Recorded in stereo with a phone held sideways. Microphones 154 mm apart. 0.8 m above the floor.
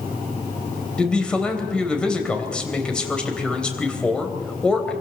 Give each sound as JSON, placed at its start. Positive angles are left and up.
{"t": 1.0, "sound": "a man speaking", "side_deg": 5, "distance_m": 3.5}